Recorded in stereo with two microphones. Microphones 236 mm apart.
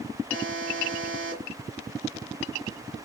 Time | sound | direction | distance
0.3 | a buzzer | 60° right (ahead or behind) | 2.5 m